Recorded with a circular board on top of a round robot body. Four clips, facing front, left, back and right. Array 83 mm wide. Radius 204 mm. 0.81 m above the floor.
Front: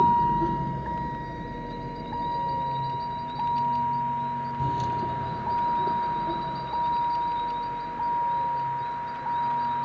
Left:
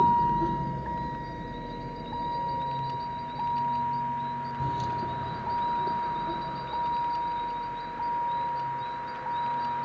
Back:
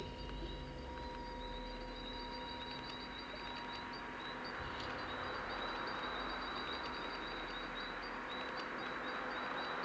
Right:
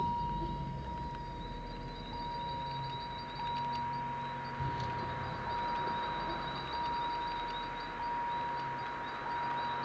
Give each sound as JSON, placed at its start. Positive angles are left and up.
{"t": 0.0, "sound": "a vehicle", "azimuth_deg": 35}